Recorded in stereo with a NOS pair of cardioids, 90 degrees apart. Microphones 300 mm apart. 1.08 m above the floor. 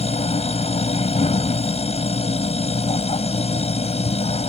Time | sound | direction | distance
0.0 | a machine running | 20° left | ?